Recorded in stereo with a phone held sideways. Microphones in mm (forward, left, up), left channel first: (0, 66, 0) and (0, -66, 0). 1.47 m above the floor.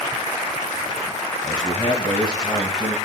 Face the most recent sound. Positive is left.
turn(degrees=35)  # may be behind; listen again after turning